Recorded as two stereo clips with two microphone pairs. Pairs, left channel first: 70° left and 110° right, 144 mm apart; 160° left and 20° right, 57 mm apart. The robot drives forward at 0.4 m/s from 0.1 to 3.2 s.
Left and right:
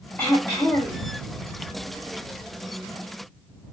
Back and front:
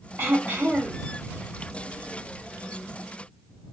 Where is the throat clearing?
5° right, 1.3 m; by 1.0 s 10° right, 1.1 m.